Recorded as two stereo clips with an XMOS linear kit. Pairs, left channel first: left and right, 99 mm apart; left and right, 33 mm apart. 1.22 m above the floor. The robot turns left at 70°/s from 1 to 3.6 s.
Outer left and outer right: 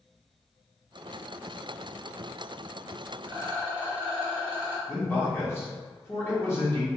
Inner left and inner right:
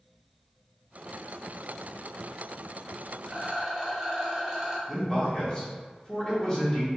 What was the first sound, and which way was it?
A rattle, 20° right (ahead or behind).